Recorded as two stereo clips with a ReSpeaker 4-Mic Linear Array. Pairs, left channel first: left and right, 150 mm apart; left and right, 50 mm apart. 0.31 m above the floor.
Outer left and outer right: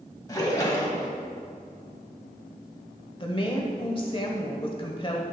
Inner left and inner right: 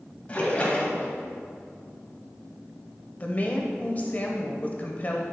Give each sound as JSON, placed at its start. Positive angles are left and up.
{"t": 0.3, "sound": "a splash", "side_deg": 25, "distance_m": 1.6}
{"t": 3.2, "sound": "a woman speaking", "side_deg": 35, "distance_m": 1.1}